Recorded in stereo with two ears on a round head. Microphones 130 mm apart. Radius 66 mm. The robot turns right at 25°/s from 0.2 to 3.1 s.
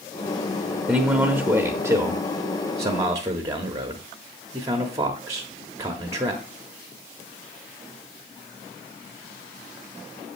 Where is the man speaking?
10° right (ahead or behind), 0.8 m; by 6.5 s 20° right (ahead or behind), 0.8 m.